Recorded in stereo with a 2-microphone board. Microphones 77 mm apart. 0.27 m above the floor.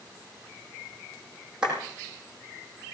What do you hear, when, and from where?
1.6 s a clap: 10° right (ahead or behind), 8.5 m